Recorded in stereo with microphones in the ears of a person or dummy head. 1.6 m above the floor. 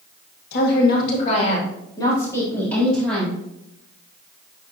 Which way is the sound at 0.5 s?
65° left (ahead or behind).